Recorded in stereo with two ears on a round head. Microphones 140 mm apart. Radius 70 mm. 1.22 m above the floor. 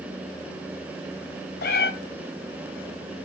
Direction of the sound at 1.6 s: 70° left (ahead or behind).